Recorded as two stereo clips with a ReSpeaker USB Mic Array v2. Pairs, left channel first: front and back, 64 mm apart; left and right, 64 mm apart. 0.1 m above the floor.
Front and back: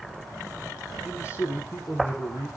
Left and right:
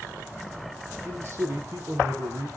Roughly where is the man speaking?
Ahead right.